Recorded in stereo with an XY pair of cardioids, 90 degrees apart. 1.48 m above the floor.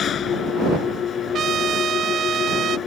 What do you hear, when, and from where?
0.0 s an engine running: 65° left
1.3 s a trumpet: 65° right